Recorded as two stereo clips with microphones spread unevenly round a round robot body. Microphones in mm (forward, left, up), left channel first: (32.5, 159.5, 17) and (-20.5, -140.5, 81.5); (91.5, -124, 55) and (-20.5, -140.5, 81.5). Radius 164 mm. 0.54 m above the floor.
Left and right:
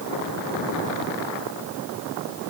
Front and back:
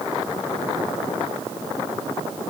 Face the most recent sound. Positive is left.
No sound to turn to.